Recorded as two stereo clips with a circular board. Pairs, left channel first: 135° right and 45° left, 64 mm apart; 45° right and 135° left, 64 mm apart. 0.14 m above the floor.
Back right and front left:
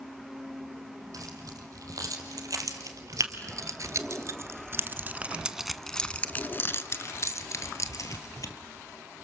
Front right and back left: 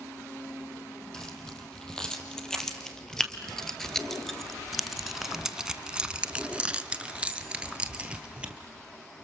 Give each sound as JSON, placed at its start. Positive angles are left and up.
{"t": 1.1, "sound": "keys jangling", "azimuth_deg": 35, "distance_m": 4.0}